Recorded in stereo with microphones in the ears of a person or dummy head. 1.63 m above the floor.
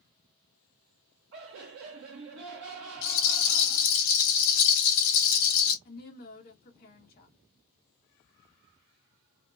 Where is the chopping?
I don't hear chopping.